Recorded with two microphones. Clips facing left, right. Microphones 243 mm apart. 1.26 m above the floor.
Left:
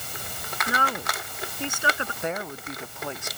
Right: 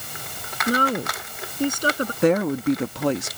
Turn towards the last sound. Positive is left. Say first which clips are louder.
# right 16 dB
turn(degrees=-75)  # may be behind; listen again after turning